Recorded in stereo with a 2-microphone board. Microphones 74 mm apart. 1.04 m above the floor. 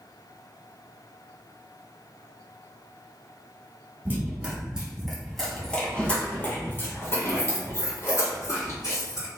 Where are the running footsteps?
30° right (ahead or behind), 1.5 m; by 9.3 s 55° left (ahead or behind), 3 m.